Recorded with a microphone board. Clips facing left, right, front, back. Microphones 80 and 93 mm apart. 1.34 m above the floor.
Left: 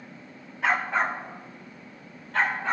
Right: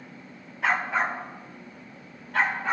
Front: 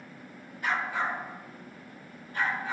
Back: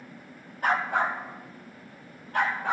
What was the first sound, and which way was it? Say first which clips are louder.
A dog barking: even, back 5 dB; straight behind.